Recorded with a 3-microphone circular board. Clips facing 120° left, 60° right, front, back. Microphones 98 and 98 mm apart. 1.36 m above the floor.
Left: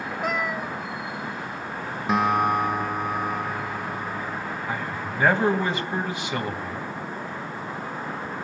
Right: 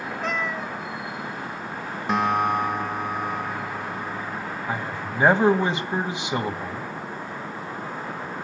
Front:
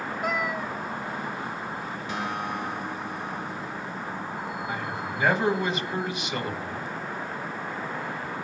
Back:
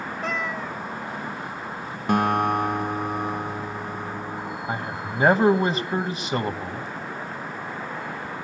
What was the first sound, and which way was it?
A cat meowing, 60° left.